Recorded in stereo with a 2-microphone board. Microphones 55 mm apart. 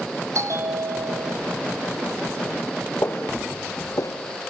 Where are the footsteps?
45° left (ahead or behind), 1.8 m; by 4.1 s 75° left (ahead or behind), 1.4 m.